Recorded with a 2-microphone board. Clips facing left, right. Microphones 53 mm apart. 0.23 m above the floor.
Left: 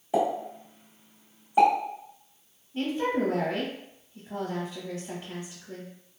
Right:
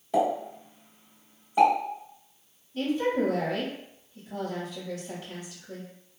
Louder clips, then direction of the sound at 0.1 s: Right 1 dB; 15° left (ahead or behind).